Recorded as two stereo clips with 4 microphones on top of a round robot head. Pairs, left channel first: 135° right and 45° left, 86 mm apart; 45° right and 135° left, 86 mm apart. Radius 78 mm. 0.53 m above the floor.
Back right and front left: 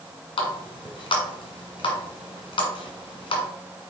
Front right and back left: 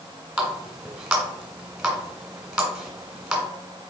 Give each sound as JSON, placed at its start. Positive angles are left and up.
{"t": 0.4, "sound": "a running tap", "azimuth_deg": -140, "distance_m": 2.0}